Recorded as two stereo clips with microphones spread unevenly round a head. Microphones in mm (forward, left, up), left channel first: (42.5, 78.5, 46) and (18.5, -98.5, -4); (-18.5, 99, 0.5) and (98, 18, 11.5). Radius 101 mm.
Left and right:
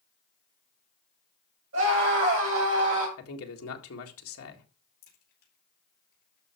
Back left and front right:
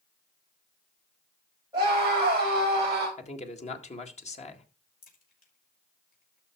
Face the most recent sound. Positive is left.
turn(degrees=130)